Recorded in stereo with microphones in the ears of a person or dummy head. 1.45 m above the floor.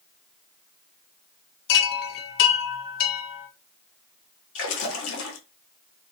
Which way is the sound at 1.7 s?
55° left (ahead or behind).